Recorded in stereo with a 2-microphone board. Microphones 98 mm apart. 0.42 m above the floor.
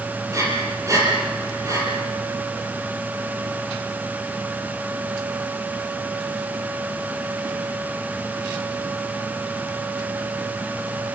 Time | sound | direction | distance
0.3 | breathing | 35° right (ahead or behind) | 8 m